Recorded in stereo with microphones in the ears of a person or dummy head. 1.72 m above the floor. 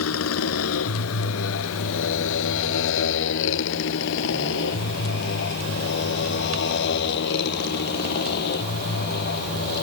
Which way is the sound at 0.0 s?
80° left.